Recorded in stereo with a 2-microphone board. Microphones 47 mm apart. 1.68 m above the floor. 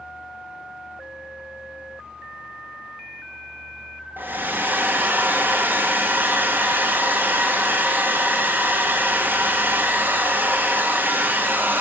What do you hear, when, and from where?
4.2 s a hair dryer: 45° right (ahead or behind), 0.6 m